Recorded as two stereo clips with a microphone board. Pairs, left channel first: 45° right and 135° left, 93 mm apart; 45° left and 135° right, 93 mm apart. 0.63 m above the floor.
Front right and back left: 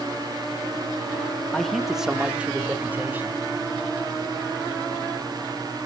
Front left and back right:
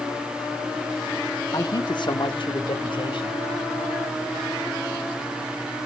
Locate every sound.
1.5 s a man speaking: 35° left, 1.0 m; by 3.4 s 65° left, 2.5 m